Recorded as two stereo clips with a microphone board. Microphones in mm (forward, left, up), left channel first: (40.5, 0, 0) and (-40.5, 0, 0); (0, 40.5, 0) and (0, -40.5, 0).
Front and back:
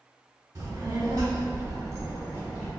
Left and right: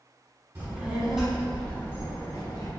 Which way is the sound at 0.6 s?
155° right.